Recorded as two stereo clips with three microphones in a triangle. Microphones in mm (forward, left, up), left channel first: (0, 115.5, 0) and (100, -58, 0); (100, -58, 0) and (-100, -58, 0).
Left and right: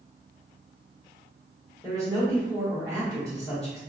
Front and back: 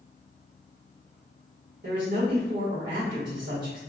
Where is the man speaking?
155° right, 1.5 m.